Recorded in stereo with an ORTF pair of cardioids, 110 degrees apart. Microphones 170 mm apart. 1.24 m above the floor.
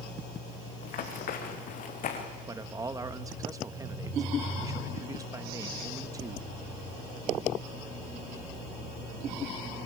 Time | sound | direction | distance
0.8 | running footsteps | 60° left | 5.5 m
2.5 | a man speaking | 20° right | 1.4 m